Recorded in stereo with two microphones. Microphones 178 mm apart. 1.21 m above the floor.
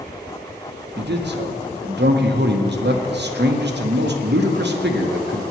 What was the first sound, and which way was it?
A man speaking, 75° right (ahead or behind).